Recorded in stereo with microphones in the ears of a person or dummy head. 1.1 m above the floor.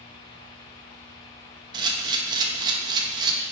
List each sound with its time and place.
1.7 s a camera shutter: 25° right (ahead or behind), 1.5 m